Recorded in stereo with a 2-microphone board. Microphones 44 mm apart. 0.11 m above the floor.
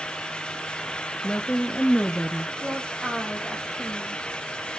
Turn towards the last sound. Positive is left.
turn(degrees=-20)  # may be behind; listen again after turning